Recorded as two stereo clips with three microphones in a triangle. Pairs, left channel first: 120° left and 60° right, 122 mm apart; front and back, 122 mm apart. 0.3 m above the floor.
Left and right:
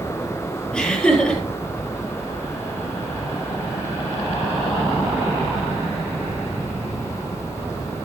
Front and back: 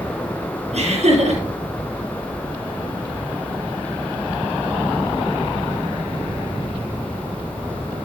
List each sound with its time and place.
0.7 s laughter: 160° right, 5 m